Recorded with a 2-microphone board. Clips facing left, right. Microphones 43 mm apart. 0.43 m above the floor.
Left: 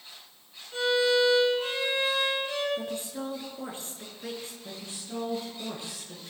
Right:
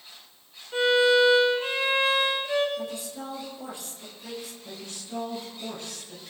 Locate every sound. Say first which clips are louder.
0.7 s a violin: right 4 dB; 25° right (ahead or behind), 6 m
2.8 s a woman speaking: even; 35° left (ahead or behind), 5.5 m
4.6 s a woman speaking: right 1 dB; 20° left (ahead or behind), 6.5 m